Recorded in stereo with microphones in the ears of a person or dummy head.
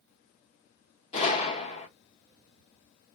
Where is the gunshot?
30° left (ahead or behind), 0.9 m.